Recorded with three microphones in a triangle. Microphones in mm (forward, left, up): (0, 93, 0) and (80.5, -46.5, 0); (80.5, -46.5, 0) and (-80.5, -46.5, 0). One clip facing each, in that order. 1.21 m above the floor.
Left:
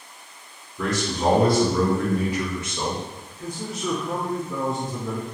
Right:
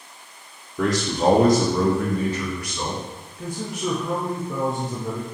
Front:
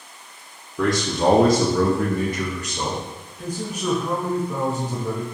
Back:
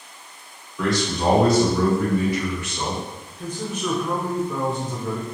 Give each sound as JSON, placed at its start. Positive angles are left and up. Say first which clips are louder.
{"t": 0.8, "sound": "a man speaking", "louder": "right 3 dB, front 2 dB", "azimuth_deg": -45, "distance_m": 0.7}
{"t": 3.4, "sound": "a man speaking", "louder": "right 2 dB, even", "azimuth_deg": -80, "distance_m": 0.6}